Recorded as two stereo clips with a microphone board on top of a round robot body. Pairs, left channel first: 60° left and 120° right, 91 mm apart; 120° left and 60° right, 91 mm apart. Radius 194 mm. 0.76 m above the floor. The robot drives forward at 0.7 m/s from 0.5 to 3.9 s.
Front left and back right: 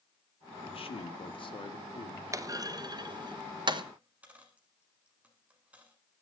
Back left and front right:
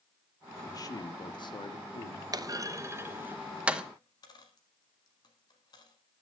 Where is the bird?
I don't hear a bird.